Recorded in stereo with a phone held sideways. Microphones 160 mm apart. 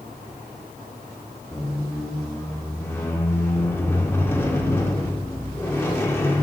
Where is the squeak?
15° left (ahead or behind), 0.5 m.